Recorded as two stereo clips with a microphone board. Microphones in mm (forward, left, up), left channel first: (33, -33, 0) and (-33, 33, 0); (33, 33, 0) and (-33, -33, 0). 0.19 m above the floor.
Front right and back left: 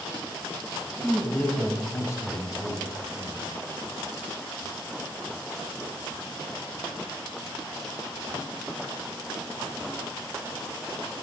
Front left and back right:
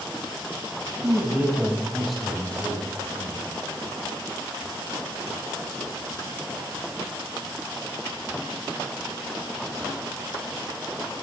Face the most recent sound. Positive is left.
turn(degrees=-10)